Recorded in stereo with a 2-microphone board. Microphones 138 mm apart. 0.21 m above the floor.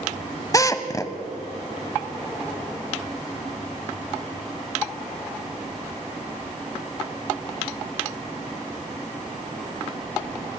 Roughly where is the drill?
Left.